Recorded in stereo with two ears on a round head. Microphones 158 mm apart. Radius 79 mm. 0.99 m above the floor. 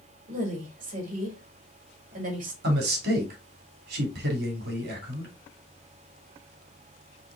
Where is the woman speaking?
45° right (ahead or behind), 2 m.